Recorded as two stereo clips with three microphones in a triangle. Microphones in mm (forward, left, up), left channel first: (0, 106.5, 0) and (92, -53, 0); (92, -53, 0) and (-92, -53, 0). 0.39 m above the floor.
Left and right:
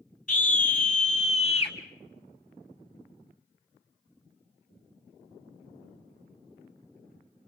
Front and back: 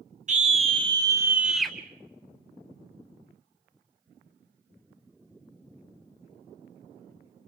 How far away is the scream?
About 1.9 m.